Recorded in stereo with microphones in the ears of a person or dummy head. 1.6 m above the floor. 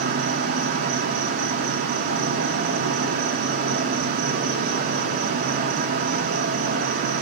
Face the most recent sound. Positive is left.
turn(degrees=-45)  # may be behind; listen again after turning